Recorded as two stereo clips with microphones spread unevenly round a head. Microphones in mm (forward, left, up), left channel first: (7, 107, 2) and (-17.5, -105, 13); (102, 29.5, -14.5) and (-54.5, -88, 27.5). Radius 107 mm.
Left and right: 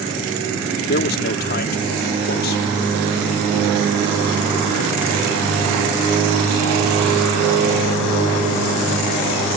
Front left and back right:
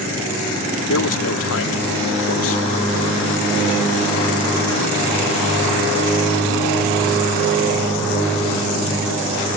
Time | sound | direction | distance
0.9 | a man speaking | 40° left | ?